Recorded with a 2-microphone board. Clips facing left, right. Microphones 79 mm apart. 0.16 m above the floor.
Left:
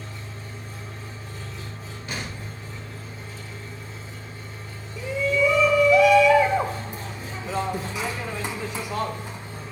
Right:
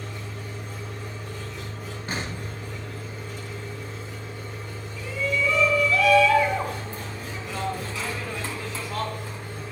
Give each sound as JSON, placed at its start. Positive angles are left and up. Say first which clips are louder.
{"t": 0.0, "sound": "an engine running", "louder": "right 3 dB", "side_deg": -70, "distance_m": 7.0}
{"t": 2.1, "sound": "an explosion", "louder": "right 2 dB", "side_deg": -40, "distance_m": 3.0}
{"t": 5.0, "sound": "a shout", "louder": "left 4 dB", "side_deg": 20, "distance_m": 1.0}